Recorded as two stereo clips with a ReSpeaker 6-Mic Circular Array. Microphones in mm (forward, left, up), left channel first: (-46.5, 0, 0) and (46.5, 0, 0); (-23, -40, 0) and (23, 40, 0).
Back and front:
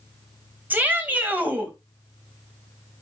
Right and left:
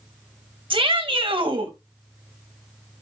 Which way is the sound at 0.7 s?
70° left.